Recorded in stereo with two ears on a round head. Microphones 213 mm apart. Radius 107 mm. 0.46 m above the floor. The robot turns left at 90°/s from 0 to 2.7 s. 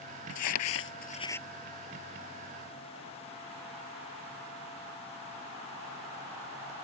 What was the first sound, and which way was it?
Crumpling, 75° left (ahead or behind).